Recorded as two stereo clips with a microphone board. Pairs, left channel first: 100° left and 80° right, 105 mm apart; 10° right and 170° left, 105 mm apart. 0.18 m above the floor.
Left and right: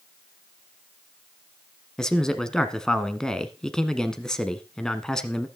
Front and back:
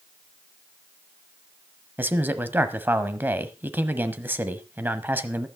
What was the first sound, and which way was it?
A man speaking, 170° left.